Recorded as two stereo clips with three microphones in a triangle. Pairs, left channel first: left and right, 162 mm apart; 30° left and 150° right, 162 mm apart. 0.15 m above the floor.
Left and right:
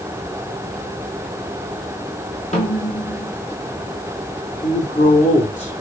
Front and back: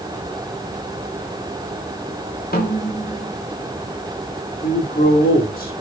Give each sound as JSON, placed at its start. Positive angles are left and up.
{"t": 2.5, "sound": "a snare drum", "azimuth_deg": 45, "distance_m": 4.5}
{"t": 4.6, "sound": "a man speaking", "azimuth_deg": 45, "distance_m": 7.0}